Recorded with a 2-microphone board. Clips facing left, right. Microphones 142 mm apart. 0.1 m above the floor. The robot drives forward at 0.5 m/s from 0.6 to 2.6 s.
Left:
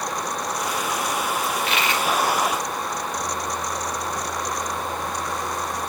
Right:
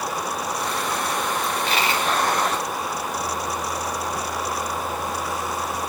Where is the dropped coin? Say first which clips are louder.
Right 1 dB; 35° right (ahead or behind), 3 m; by 2.1 s 30° right (ahead or behind), 3.5 m.